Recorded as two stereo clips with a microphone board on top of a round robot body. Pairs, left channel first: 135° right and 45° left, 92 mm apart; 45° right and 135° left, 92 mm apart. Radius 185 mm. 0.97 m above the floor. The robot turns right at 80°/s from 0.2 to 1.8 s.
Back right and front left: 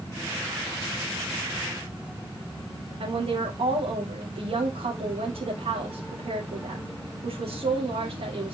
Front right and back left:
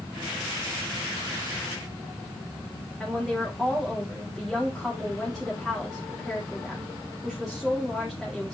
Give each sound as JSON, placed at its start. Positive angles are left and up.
{"t": 3.0, "sound": "a woman speaking", "azimuth_deg": 45, "distance_m": 2.5}